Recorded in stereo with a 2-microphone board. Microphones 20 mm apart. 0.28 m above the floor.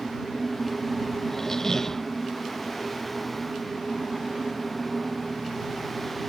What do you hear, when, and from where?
1.3 s a squeak: 25° left (ahead or behind)